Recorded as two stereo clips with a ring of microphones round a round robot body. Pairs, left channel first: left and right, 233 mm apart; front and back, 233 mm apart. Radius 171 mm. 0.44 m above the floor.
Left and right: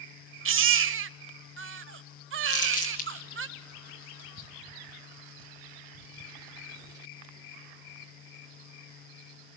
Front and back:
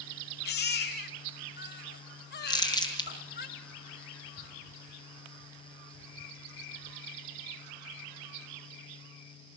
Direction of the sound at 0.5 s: 55° right.